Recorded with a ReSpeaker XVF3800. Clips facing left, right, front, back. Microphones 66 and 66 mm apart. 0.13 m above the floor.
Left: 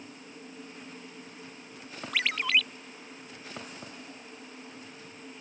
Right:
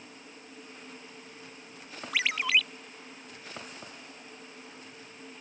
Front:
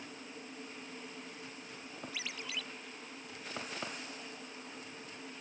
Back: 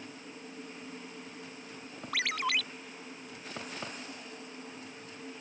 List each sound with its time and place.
2.1 s a ringtone: 175° right